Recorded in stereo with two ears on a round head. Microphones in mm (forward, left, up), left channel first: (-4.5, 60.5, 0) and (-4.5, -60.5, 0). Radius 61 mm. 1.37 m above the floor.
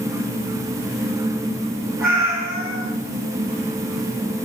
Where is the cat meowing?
20° right (ahead or behind), 1.9 m.